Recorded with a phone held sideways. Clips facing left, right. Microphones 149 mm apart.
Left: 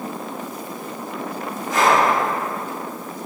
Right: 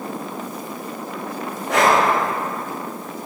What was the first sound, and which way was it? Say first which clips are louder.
Breathing: right 1 dB; 75° right (ahead or behind).